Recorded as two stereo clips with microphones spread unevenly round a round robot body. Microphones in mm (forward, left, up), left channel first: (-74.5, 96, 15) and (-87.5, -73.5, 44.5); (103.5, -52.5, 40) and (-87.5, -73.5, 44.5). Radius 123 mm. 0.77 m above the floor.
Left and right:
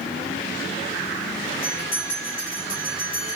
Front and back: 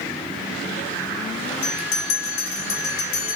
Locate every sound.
1.6 s a bell: 15° left, 1.5 m